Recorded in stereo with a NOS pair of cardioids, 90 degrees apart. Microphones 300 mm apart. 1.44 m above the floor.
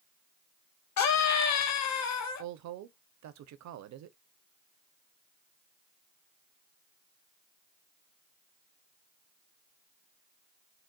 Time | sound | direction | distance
1.0 | a scream | 60° left | 1.1 m
2.4 | a woman speaking | 60° right | 0.7 m